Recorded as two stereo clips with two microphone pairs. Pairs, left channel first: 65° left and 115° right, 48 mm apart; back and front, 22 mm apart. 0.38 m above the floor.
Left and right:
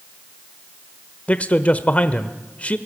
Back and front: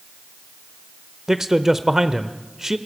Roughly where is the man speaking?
Ahead left.